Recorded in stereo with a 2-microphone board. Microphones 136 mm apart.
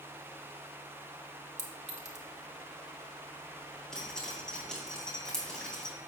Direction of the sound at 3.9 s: 5° left (ahead or behind).